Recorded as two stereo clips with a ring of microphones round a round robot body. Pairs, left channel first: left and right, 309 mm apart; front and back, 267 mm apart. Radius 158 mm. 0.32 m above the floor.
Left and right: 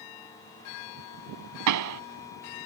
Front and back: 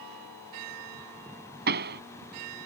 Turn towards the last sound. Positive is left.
turn(degrees=-120)